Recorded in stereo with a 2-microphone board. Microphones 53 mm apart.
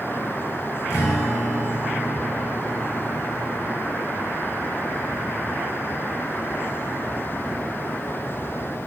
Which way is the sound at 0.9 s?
75° left (ahead or behind).